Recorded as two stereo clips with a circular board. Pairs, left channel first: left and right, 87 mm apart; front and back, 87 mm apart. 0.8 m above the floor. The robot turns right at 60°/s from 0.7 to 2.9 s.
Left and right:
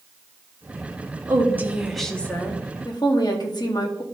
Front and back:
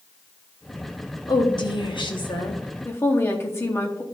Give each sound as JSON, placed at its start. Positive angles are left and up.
{"t": 1.3, "sound": "a woman speaking", "azimuth_deg": -40, "distance_m": 1.1}